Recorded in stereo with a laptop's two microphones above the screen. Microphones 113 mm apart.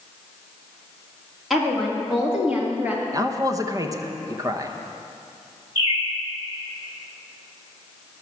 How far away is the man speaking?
About 0.7 m.